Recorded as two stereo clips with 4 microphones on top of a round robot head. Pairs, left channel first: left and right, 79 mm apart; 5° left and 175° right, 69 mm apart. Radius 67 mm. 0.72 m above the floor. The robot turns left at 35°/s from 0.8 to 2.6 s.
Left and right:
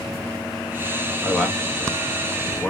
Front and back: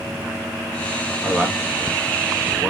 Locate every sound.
1.2 s a man speaking: 170° right, 1.1 m; by 2.7 s 140° left, 1.1 m